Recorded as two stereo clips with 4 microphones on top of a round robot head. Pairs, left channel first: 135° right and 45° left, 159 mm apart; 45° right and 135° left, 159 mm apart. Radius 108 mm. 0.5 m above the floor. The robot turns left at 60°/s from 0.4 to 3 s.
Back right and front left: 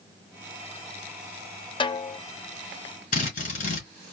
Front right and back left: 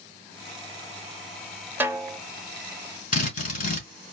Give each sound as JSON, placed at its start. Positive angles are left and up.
{"t": 1.8, "sound": "a snare drum", "azimuth_deg": -160, "distance_m": 0.7}
{"t": 3.1, "sound": "a drill", "azimuth_deg": -85, "distance_m": 2.5}